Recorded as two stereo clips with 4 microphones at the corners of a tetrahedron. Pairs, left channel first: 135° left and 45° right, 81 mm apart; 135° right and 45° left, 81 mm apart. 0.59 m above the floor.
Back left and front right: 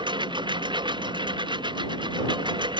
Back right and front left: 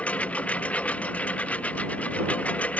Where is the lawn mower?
60° right.